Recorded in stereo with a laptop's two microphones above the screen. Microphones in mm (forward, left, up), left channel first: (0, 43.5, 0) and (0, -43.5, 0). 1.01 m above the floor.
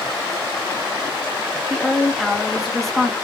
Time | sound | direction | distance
1.7 | a woman speaking | centre (ahead or behind) | 1.3 m